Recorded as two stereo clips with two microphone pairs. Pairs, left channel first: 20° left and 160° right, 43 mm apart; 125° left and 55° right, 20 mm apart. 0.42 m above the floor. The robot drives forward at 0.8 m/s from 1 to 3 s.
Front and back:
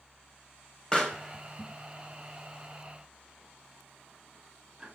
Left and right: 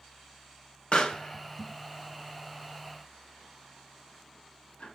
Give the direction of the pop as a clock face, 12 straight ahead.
9 o'clock.